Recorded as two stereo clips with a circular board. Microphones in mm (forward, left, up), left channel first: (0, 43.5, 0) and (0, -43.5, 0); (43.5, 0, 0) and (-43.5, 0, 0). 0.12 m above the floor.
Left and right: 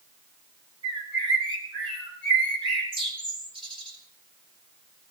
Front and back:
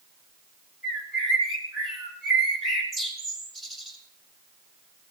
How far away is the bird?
About 4.5 m.